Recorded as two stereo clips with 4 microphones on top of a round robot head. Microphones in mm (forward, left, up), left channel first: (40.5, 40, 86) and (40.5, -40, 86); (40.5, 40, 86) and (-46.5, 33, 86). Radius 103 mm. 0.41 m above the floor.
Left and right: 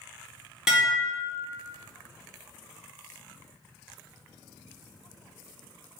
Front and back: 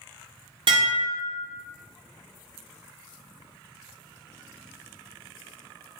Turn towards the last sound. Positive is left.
turn(degrees=-170)